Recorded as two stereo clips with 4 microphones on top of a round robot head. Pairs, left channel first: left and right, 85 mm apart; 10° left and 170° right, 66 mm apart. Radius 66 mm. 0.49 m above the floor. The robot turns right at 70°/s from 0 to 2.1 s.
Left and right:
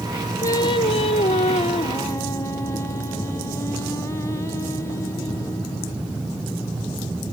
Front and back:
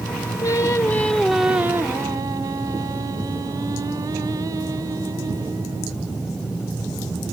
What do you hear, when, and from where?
0.4 s singing: 40° left, 0.7 m; by 6.0 s 155° left, 0.7 m